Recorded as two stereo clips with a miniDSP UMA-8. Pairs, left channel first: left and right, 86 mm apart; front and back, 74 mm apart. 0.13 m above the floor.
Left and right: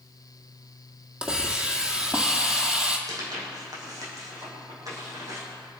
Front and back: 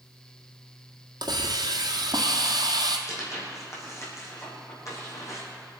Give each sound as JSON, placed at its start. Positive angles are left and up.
{"t": 1.2, "sound": "a hiss", "azimuth_deg": -170, "distance_m": 1.7}
{"t": 3.1, "sound": "tearing paper", "azimuth_deg": -45, "distance_m": 4.5}